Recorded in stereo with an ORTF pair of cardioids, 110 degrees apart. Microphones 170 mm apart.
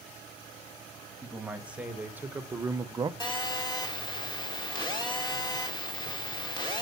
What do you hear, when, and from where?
1.2 s a man speaking: 5° right, 2 m; by 3.1 s 25° right, 0.7 m
3.2 s a phone buzzing: 30° left, 2.5 m